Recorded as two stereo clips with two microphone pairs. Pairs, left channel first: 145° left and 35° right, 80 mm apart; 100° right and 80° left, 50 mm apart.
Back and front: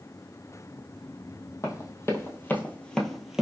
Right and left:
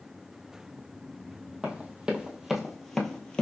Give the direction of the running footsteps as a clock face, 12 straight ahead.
7 o'clock.